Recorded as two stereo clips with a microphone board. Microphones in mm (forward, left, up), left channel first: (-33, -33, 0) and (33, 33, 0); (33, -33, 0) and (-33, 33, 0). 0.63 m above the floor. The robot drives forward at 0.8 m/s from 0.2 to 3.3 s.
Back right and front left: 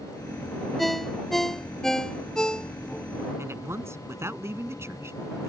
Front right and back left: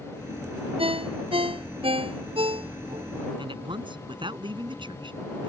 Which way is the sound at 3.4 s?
105° left.